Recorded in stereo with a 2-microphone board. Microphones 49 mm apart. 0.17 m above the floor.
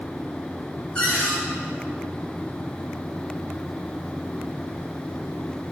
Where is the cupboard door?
20° left (ahead or behind), 3.5 m.